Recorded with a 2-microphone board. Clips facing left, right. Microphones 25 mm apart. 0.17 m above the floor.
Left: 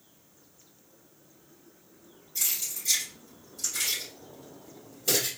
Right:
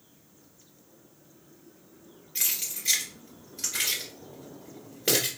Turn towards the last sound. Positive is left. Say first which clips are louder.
# right 1 dB
turn(degrees=-60)  # may be behind; listen again after turning